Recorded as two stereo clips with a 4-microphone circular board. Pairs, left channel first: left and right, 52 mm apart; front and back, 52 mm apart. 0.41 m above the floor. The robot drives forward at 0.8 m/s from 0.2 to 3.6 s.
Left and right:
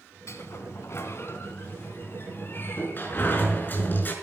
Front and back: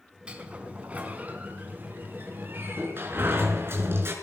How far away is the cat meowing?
No cat meowing in this recording.